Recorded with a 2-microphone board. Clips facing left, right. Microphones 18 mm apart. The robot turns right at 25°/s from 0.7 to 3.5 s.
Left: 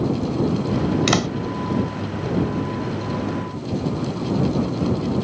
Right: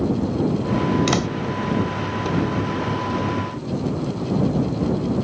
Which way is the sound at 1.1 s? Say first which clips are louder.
Left 1 dB; 15° left (ahead or behind).